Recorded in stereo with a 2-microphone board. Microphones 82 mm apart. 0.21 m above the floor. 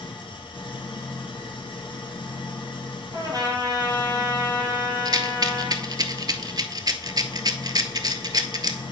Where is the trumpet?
45° right (ahead or behind), 1.9 m.